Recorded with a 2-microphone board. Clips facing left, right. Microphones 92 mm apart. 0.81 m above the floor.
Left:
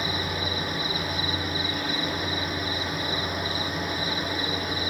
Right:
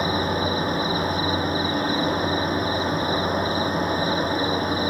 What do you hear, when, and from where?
0.0 s an insect: 40° right (ahead or behind), 1.3 m